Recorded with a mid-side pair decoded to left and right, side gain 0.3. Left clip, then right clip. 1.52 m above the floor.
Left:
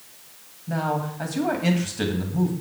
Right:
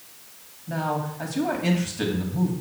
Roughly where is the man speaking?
Ahead left.